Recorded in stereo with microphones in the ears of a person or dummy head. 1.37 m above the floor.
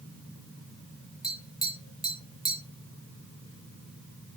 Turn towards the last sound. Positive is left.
turn(degrees=0)  # may be behind; listen again after turning